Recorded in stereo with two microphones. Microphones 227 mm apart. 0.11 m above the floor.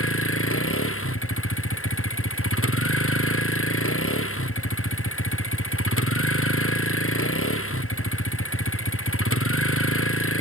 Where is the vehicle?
70° left (ahead or behind).